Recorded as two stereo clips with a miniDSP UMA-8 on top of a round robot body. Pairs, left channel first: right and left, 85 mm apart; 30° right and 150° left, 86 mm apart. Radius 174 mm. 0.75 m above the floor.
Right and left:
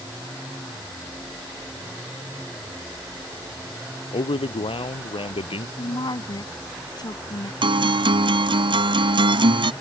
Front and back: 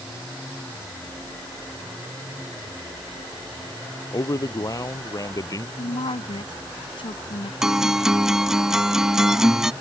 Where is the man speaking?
80° right.